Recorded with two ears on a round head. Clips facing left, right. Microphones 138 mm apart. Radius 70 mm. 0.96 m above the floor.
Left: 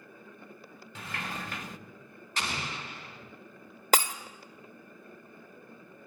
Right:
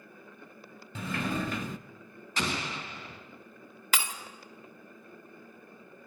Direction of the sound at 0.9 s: 75° right (ahead or behind).